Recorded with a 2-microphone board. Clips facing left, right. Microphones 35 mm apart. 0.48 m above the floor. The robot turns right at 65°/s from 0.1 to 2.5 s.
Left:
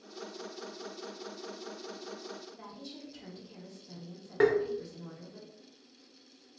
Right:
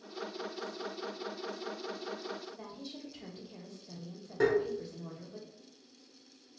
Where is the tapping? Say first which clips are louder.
Left 3 dB; 45° left (ahead or behind), 0.6 m.